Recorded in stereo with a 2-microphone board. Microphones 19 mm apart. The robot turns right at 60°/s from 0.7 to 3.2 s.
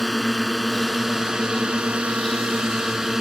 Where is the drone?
Straight behind; by 3.2 s 30° right.